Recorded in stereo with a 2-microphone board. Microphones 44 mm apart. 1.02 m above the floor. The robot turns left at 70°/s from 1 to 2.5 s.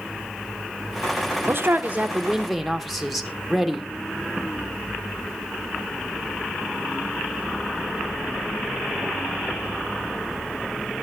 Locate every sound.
1.5 s a man speaking: 110° right, 1.0 m; by 3.9 s straight behind, 1.0 m